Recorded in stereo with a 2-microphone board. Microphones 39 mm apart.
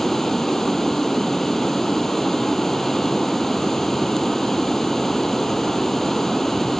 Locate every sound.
0.0 s running water: 10° left (ahead or behind), 0.7 m